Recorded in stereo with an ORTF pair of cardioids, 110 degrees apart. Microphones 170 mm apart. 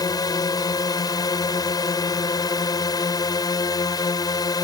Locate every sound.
0.0 s a drone: 25° left